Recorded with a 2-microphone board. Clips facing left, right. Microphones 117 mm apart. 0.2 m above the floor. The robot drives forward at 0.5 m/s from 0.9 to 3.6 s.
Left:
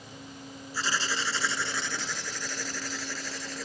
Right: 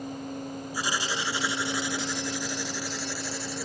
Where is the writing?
15° right (ahead or behind); by 3.7 s 10° right (ahead or behind).